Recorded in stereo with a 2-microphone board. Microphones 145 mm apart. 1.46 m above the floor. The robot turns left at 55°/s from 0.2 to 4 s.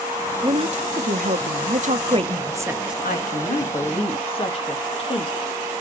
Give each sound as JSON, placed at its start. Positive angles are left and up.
{"t": 0.4, "sound": "a woman speaking", "azimuth_deg": -40, "distance_m": 0.8}
{"t": 3.0, "sound": "a woman speaking", "azimuth_deg": 90, "distance_m": 1.9}